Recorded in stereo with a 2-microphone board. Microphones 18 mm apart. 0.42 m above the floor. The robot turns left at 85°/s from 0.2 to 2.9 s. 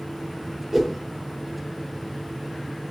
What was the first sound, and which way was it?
A whoosh, 20° right (ahead or behind).